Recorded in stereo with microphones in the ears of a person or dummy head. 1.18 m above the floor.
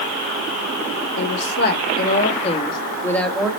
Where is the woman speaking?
65° left (ahead or behind), 2.5 m; by 3.5 s 5° right (ahead or behind), 1.8 m.